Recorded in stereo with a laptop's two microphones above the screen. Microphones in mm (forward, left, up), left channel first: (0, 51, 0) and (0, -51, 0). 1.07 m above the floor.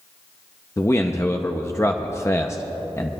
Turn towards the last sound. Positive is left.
turn(degrees=25)  # may be behind; listen again after turning